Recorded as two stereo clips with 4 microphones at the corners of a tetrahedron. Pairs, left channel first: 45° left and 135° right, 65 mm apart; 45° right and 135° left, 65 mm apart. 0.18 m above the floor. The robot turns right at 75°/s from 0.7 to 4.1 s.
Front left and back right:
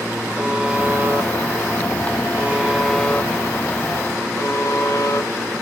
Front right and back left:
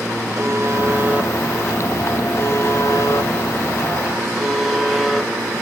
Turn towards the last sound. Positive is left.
turn(degrees=50)